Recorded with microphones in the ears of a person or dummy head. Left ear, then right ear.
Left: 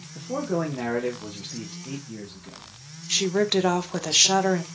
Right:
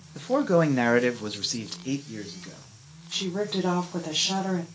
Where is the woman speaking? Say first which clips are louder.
Left 6 dB; 75° left (ahead or behind), 0.8 m.